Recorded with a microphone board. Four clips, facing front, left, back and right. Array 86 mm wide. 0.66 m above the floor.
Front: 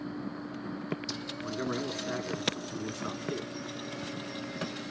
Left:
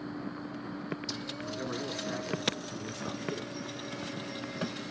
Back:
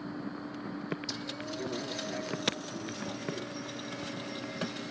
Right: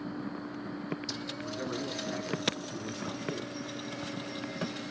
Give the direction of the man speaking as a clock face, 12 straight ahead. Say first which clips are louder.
Even, front 4 dB; 12 o'clock.